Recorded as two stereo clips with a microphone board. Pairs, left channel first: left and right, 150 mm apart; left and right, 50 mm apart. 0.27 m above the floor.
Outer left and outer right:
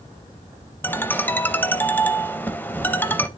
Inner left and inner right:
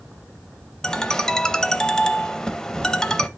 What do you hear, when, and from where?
0.8 s a ringtone: 15° left (ahead or behind), 0.5 m